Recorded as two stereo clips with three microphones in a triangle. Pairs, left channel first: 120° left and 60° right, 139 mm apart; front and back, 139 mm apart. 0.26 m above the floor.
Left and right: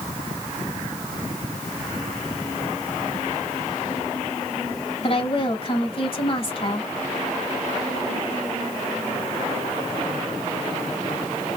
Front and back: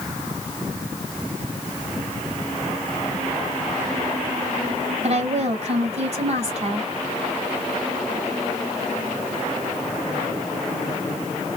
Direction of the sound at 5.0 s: 155° left.